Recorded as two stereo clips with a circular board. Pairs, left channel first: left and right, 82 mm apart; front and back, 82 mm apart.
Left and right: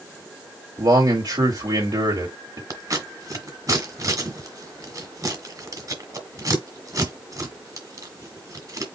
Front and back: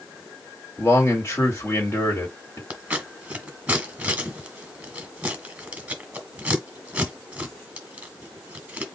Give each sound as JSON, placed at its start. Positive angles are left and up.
{"t": 0.8, "sound": "a man speaking", "azimuth_deg": -60, "distance_m": 2.5}
{"t": 2.7, "sound": "scissors", "azimuth_deg": -110, "distance_m": 1.6}